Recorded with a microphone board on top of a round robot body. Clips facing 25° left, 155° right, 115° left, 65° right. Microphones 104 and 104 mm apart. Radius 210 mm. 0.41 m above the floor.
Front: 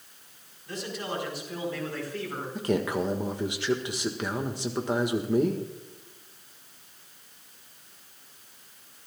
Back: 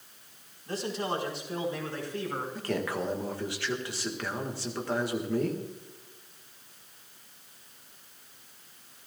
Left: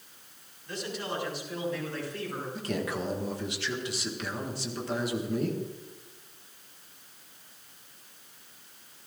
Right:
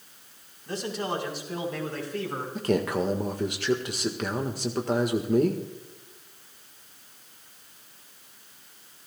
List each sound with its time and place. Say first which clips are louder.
0.7 s a man speaking: back 3 dB, right 5 dB; 105° right, 4.5 m; by 2.5 s 90° right, 5 m
2.5 s a man speaking: front 7 dB, right 8 dB; 45° right, 1.8 m